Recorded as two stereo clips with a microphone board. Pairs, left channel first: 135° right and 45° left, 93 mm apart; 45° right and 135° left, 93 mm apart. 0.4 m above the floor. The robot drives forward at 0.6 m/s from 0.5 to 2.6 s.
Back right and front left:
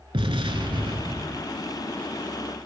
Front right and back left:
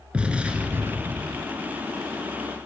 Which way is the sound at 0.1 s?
60° left.